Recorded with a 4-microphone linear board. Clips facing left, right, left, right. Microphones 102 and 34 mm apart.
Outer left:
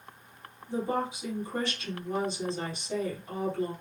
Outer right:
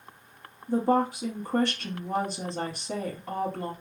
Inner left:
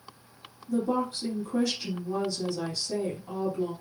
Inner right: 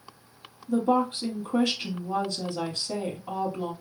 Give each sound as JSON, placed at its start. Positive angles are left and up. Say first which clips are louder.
{"t": 0.7, "sound": "a woman speaking", "louder": "outer right 7 dB, inner right 4 dB", "side_deg": -70, "distance_m": 3.0}